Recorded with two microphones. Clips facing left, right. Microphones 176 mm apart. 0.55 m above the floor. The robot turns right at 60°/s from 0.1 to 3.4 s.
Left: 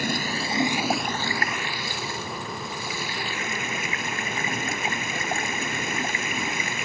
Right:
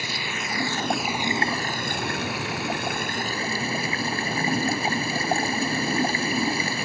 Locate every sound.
0.0 s running water: 130° left; by 6.8 s 35° right